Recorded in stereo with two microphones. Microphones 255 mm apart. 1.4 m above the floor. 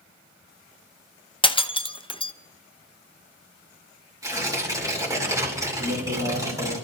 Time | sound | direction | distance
1.4 | breaking glass | 20° left (ahead or behind) | 0.6 m
4.2 | tearing paper | 15° right (ahead or behind) | 3 m
5.8 | a man speaking | 75° right (ahead or behind) | 4 m